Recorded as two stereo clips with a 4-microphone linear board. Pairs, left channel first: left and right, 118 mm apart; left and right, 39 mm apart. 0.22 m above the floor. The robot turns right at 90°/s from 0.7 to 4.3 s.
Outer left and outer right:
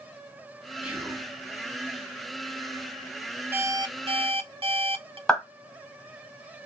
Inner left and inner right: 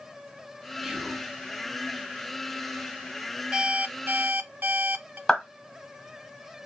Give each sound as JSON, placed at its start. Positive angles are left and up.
{"t": 0.8, "sound": "whispering", "side_deg": -10, "distance_m": 1.3}
{"t": 3.5, "sound": "an alarm clock", "azimuth_deg": -160, "distance_m": 0.8}
{"t": 5.3, "sound": "a clap", "side_deg": 5, "distance_m": 2.0}